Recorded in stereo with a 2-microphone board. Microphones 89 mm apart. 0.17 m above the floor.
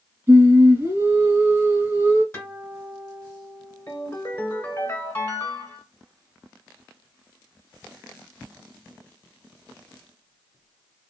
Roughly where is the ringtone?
Left.